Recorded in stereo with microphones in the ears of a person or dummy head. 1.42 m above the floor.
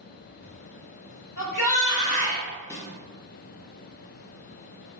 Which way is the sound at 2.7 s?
15° left (ahead or behind).